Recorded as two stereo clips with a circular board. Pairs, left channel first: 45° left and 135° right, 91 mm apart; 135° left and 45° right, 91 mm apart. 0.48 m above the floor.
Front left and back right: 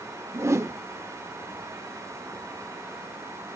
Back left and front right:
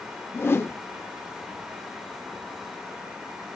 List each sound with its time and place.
0.3 s a whoosh: 175° right, 0.9 m